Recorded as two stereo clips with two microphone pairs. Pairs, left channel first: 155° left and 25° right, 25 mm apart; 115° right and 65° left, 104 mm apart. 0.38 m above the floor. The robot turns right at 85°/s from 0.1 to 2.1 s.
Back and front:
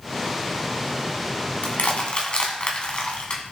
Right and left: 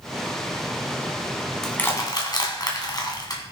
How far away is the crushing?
About 2 m.